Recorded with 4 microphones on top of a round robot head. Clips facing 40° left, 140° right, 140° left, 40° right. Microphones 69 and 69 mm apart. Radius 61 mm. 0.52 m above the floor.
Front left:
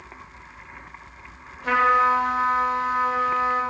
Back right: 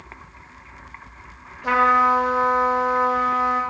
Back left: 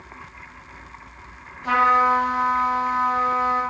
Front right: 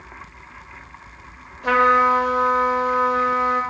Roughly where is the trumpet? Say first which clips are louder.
Back right 2 dB, front right 2 dB; ahead right.